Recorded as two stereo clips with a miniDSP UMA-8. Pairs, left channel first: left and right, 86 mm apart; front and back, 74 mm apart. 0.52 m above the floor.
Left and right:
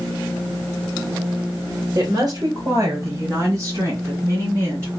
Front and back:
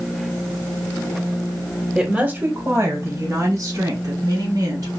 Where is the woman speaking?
100° right, 1.6 m; by 4.9 s 150° right, 5 m.